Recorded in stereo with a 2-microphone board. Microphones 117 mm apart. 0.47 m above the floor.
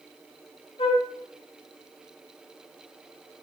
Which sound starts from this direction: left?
A flute, at 0.8 s.